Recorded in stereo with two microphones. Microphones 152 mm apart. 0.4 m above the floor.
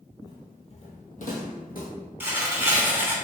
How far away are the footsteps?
About 0.6 m.